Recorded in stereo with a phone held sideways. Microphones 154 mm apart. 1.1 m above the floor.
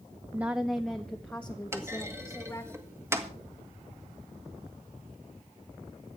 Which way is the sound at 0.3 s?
15° right (ahead or behind).